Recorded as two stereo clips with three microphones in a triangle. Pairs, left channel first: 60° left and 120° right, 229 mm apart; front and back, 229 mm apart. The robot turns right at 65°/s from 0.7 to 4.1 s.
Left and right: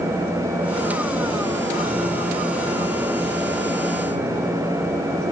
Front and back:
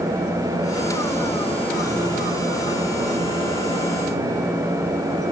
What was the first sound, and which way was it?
Only background noise.